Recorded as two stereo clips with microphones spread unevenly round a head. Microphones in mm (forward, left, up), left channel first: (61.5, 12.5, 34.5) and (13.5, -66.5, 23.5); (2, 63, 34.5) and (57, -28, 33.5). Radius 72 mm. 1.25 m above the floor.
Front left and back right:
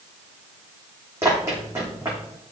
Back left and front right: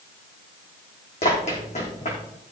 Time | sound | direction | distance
1.2 | running footsteps | 165° left | 4.5 m